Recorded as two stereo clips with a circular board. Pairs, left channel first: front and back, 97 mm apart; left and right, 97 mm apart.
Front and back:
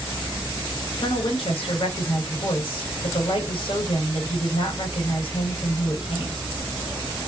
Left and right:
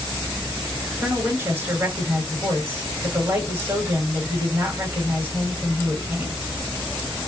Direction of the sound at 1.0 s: 20° right.